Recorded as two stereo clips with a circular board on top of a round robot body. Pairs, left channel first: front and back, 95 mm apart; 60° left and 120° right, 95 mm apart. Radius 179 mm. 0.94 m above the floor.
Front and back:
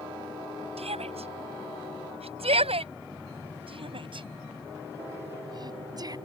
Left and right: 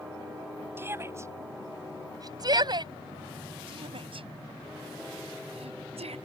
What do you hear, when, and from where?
0.8 s a shout: 175° left; by 6.2 s 130° right